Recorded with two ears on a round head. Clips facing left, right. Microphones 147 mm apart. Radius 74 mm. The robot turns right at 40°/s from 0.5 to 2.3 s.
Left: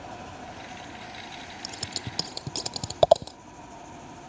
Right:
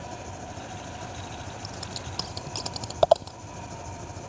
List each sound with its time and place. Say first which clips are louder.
0.0 s an engine running: right 1 dB; 145° right; by 4.3 s 75° right
1.6 s scissors: right 1 dB; 40° left (ahead or behind); by 3.4 s 15° left (ahead or behind)